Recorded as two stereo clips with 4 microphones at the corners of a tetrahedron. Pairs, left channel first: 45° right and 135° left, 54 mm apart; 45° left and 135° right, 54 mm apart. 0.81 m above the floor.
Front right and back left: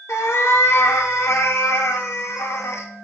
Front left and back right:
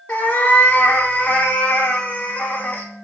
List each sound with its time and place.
0.1 s a cat meowing: 15° right, 0.5 m